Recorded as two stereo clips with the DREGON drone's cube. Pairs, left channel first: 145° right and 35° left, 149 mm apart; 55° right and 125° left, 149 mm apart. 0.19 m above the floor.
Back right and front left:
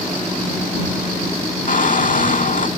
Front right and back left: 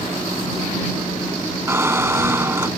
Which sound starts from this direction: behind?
A squeak, at 1.7 s.